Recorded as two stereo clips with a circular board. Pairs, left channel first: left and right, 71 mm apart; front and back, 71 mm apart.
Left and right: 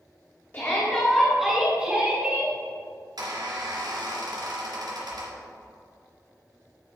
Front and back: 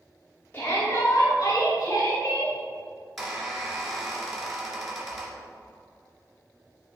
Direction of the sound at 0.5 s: 45° left.